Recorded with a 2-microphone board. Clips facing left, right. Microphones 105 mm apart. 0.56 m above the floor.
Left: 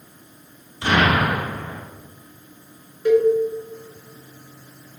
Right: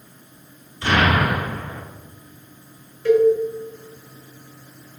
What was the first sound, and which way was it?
An explosion, 20° left (ahead or behind).